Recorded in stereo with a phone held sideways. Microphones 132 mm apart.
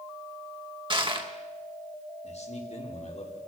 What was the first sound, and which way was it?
Crushing, 40° right (ahead or behind).